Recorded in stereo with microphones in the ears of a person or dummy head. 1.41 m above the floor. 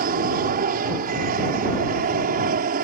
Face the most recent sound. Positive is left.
turn(degrees=-45)  # may be behind; listen again after turning